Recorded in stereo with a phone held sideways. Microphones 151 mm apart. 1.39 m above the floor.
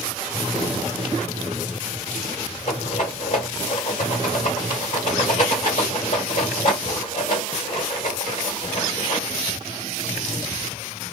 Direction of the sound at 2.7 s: 55° left (ahead or behind).